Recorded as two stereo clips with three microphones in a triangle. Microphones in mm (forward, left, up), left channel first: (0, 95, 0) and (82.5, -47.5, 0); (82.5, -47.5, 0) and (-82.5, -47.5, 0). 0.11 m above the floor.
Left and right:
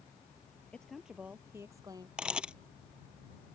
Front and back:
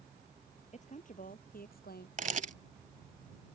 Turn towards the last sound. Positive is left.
turn(degrees=-145)